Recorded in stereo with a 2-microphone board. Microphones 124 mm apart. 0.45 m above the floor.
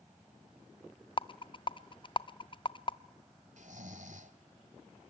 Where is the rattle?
40° left (ahead or behind), 0.6 m.